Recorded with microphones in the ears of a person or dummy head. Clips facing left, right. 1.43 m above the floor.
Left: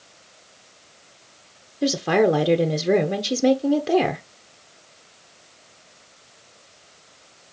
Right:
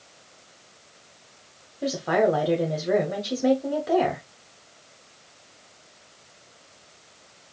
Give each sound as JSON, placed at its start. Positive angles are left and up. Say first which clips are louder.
{"t": 1.8, "sound": "a woman speaking", "louder": "left 3 dB", "side_deg": 40, "distance_m": 0.8}